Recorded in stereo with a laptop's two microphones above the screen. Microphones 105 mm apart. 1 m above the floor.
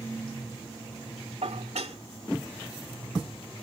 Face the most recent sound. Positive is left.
turn(degrees=-75)  # may be behind; listen again after turning